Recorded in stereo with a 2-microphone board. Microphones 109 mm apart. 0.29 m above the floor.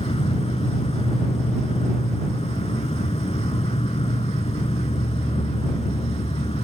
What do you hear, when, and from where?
0.0 s an insect: 65° left (ahead or behind)